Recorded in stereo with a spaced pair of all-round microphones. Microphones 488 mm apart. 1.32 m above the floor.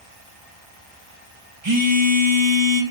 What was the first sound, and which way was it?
A phone buzzing, 65° right (ahead or behind).